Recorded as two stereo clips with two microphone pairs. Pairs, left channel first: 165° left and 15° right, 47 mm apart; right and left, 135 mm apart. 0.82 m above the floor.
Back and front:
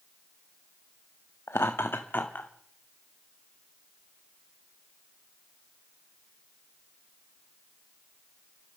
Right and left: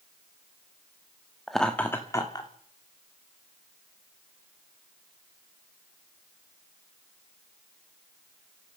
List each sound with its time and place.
1.5 s laughter: straight behind, 1.1 m; by 2.5 s 145° right, 1.7 m